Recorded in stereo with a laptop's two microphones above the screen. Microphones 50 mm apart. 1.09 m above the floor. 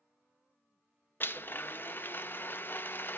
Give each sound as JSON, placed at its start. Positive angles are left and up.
{"t": 1.2, "sound": "a blender", "side_deg": 45, "distance_m": 0.5}